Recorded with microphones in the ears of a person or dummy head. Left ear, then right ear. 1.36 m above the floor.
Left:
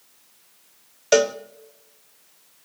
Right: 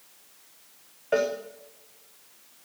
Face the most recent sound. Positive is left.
turn(degrees=80)